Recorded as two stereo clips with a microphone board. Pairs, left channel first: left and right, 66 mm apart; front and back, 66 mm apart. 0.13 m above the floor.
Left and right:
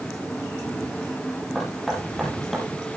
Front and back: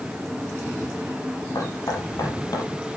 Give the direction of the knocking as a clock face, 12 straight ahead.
12 o'clock.